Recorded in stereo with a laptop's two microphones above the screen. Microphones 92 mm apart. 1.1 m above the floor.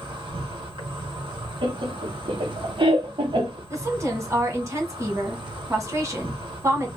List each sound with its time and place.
0.0 s an insect: 70° right (ahead or behind), 2 m
1.6 s laughter: 70° right (ahead or behind), 1.3 m
3.7 s a woman speaking: 35° right (ahead or behind), 1.5 m